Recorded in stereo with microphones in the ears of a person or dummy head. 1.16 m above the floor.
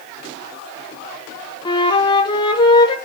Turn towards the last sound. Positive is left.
turn(degrees=25)  # may be behind; listen again after turning